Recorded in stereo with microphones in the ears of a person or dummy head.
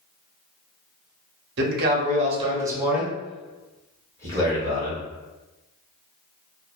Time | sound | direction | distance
1.6 | a man speaking | 60° right (ahead or behind) | 0.8 m